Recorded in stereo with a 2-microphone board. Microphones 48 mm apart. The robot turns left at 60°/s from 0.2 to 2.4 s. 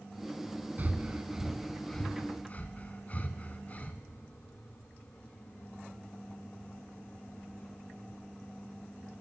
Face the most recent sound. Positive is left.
turn(degrees=35)  # may be behind; listen again after turning